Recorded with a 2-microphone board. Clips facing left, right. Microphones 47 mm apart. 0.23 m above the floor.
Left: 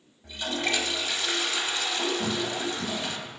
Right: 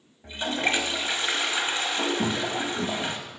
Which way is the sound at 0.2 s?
30° right (ahead or behind).